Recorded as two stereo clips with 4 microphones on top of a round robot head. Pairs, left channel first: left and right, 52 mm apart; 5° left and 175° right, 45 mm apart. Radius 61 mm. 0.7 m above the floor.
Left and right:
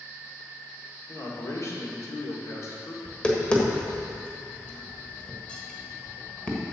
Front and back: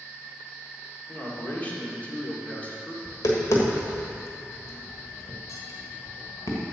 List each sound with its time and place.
1.1 s a man speaking: 60° left, 2.5 m
3.0 s tapping: 15° left, 1.5 m